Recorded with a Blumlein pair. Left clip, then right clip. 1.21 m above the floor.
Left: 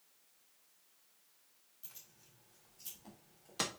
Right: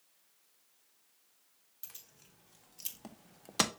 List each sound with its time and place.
1.8 s keys jangling: 60° right, 3 m; by 3.7 s 20° right, 0.7 m